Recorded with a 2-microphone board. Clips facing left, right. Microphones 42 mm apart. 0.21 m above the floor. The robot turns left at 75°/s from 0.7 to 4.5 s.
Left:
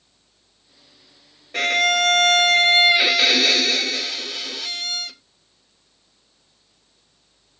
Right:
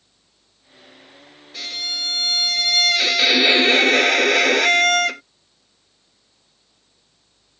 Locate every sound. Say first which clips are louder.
1.5 s a violin: left 11 dB; 125° left; by 5.2 s 95° right